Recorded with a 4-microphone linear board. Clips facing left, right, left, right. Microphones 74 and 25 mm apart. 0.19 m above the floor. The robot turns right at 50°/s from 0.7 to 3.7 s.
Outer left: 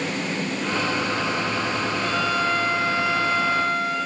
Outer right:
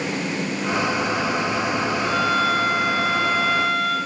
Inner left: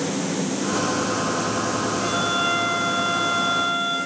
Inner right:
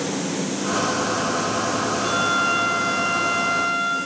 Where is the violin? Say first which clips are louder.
Outer right 3 dB, inner right 2 dB; straight behind, 4 m; by 4.0 s 95° right, 4 m.